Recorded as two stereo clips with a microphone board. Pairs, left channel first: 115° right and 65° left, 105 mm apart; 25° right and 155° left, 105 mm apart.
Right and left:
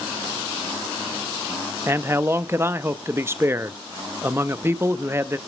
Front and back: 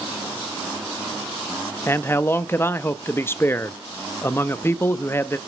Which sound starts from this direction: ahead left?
A man speaking, at 1.9 s.